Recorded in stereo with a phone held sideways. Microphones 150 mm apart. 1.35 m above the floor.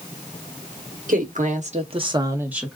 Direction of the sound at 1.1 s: 65° right (ahead or behind).